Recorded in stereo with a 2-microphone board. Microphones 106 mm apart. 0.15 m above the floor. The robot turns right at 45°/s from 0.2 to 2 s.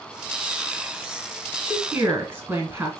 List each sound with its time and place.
1.7 s a woman speaking: 15° right (ahead or behind), 1.5 m; by 3.0 s 20° right (ahead or behind), 1.5 m